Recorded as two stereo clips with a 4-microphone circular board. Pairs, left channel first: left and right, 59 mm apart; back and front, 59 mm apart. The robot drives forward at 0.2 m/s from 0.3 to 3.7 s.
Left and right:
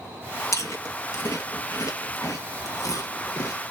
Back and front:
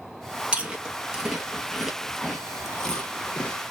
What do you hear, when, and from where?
0.5 s chewing: 65° left, 0.9 m; by 3.6 s 110° left, 0.9 m